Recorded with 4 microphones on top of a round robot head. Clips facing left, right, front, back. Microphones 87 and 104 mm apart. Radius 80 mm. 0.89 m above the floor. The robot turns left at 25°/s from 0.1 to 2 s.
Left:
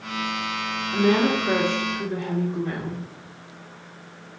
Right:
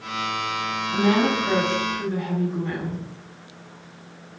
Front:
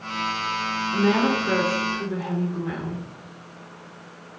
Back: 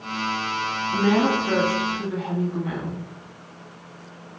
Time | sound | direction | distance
0.9 | a woman speaking | 145° right | 1.5 m